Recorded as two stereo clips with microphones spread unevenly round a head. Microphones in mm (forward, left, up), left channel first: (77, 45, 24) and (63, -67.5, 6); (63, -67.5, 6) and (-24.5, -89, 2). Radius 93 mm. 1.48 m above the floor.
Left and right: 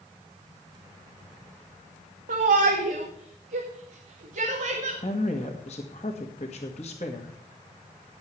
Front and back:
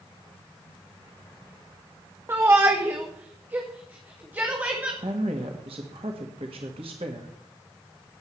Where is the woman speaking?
135° left, 1.7 m.